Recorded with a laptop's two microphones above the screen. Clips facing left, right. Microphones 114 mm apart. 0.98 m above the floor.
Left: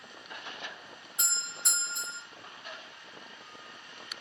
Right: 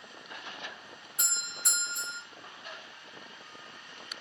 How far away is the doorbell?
About 1.3 m.